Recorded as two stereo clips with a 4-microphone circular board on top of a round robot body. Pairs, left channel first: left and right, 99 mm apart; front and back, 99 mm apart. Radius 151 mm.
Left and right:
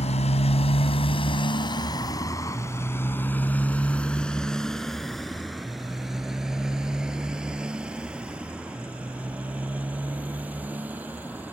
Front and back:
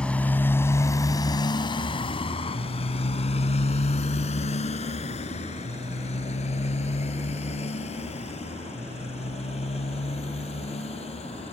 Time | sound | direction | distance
0.0 | a motorcycle | 80° left | ?